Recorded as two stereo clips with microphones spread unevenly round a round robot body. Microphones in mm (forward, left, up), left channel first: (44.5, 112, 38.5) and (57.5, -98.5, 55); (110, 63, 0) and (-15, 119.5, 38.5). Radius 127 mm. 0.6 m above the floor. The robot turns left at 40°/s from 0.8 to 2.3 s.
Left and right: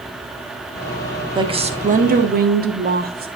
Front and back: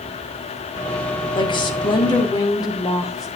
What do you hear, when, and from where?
1.4 s a woman speaking: 20° right, 1.6 m; by 3.3 s 60° right, 1.6 m